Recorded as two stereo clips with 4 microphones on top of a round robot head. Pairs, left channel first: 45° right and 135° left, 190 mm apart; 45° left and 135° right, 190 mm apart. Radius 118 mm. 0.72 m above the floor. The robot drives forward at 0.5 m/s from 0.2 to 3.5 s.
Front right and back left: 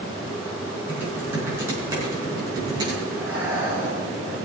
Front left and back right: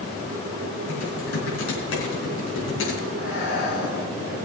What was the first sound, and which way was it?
Typing on a keyboard, 55° left.